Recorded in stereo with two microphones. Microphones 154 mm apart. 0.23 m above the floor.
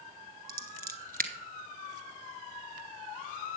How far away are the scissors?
About 0.9 m.